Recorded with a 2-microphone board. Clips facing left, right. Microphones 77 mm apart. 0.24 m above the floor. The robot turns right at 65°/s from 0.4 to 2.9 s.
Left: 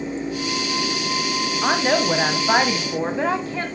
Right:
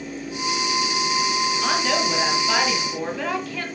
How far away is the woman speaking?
About 1.8 m.